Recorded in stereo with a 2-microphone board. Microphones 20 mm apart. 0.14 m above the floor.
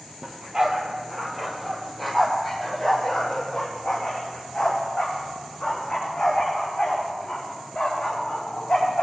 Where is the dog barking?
35° right (ahead or behind), 1.6 m; by 9.0 s 45° left (ahead or behind), 5.5 m.